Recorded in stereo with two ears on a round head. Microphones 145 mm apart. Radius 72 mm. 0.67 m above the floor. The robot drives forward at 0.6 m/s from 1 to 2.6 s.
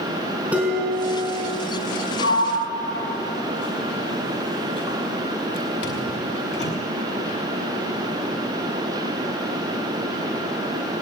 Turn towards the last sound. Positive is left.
turn(degrees=80)